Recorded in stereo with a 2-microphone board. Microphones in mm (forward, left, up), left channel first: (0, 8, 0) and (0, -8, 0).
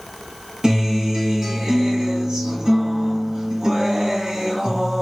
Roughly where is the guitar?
Right.